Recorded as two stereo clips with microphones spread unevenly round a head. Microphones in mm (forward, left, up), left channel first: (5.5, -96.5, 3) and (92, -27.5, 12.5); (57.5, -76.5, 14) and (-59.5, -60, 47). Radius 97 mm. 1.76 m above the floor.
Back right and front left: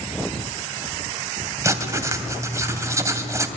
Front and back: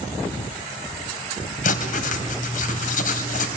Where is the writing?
15° right, 2.5 m.